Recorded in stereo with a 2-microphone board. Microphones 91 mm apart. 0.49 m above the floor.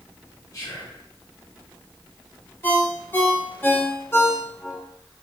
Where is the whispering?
35° left (ahead or behind), 1.2 m.